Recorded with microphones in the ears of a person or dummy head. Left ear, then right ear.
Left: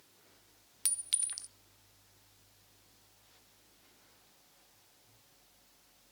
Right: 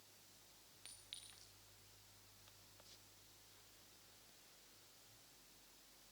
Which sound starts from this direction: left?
A clink, at 0.8 s.